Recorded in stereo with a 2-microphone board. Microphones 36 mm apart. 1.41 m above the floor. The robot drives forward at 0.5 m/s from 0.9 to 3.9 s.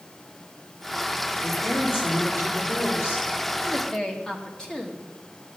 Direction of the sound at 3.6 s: 25° left (ahead or behind).